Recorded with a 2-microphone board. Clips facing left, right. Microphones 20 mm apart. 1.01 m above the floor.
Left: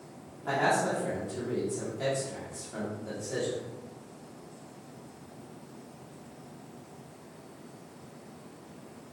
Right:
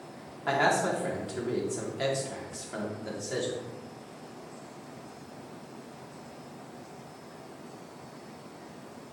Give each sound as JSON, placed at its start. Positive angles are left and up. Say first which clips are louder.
{"t": 0.5, "sound": "a man speaking", "louder": "right 1 dB", "side_deg": -45, "distance_m": 3.0}